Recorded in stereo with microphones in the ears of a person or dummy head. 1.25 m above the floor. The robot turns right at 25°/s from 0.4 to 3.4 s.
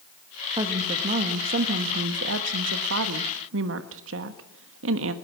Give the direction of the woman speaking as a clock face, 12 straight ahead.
5 o'clock.